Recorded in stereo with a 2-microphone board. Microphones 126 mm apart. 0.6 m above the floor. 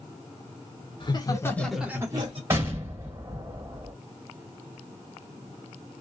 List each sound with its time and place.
1.0 s laughter: 40° left (ahead or behind), 1.4 m; by 2.4 s 45° right (ahead or behind), 1.3 m
2.5 s an explosion: 20° right (ahead or behind), 2 m